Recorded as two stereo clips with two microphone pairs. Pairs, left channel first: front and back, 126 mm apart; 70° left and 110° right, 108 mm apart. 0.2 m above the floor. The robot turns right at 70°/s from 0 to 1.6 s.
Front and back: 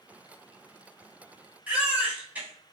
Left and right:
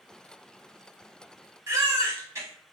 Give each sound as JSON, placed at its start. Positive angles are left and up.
{"t": 1.7, "sound": "a baby crying", "azimuth_deg": -110, "distance_m": 0.9}